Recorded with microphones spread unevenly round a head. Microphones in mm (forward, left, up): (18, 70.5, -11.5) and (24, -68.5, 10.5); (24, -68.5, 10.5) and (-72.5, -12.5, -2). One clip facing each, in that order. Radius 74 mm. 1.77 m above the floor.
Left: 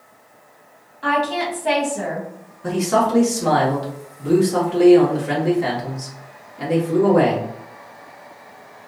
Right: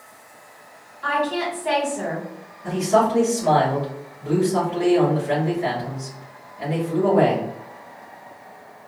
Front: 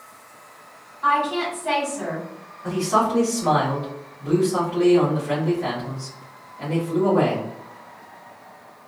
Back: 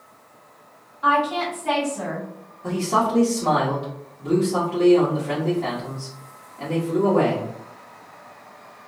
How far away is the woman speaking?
About 1.9 m.